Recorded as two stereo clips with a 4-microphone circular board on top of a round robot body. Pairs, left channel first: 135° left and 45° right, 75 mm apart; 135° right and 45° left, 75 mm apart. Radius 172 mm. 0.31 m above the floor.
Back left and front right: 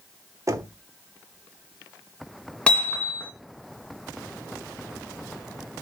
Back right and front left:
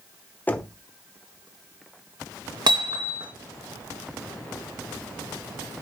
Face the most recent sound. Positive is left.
turn(degrees=60)